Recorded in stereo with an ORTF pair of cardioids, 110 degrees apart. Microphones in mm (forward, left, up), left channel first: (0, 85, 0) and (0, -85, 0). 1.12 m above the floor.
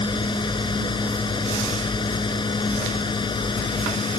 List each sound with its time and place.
0.0 s a fan: 30° left